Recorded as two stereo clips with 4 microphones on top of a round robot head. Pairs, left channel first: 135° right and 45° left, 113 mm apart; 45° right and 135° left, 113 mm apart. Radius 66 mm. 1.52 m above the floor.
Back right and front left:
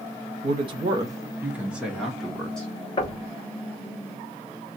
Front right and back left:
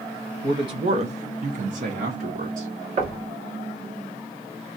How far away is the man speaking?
About 1.2 m.